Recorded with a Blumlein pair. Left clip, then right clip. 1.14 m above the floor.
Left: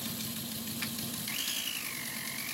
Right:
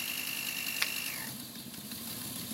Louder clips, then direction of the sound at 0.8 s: Right 5 dB; 65° right.